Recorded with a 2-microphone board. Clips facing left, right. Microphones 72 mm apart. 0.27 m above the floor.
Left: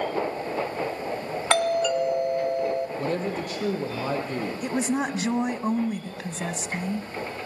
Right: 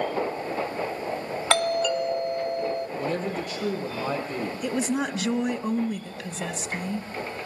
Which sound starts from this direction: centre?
A doorbell, at 1.5 s.